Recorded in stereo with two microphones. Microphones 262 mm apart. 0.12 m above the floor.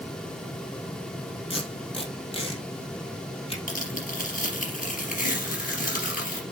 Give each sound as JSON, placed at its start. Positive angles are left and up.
{"t": 1.5, "sound": "tape being pulled", "side_deg": 20, "distance_m": 2.5}
{"t": 3.7, "sound": "tearing paper", "side_deg": 35, "distance_m": 3.0}